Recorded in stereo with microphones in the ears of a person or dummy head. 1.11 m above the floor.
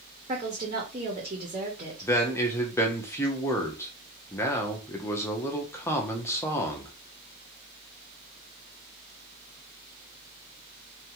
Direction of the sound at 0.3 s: 30° right (ahead or behind).